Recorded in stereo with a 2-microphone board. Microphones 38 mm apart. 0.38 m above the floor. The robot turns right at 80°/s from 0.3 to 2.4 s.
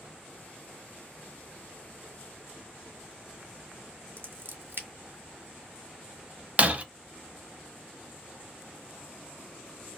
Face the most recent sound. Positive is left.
turn(degrees=-30)  # may be behind; listen again after turning